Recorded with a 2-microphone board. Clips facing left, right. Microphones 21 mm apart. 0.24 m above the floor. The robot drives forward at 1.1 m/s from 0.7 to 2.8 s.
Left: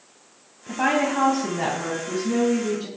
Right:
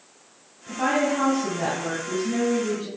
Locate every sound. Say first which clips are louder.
0.7 s a woman speaking: left 1 dB; 35° left (ahead or behind), 1.2 m; by 2.9 s 15° left (ahead or behind), 2.5 m